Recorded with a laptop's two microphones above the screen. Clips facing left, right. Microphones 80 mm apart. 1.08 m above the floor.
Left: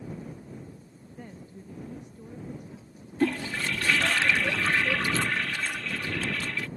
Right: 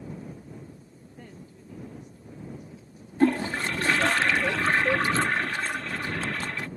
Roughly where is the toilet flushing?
Right.